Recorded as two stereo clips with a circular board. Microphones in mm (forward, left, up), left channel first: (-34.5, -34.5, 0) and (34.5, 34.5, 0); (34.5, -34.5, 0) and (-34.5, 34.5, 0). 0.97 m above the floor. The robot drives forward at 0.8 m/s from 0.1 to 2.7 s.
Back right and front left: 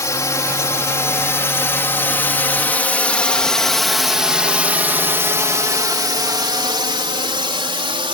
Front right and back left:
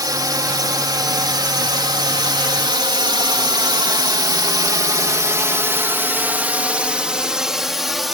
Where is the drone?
175° left; by 8.2 s 45° left.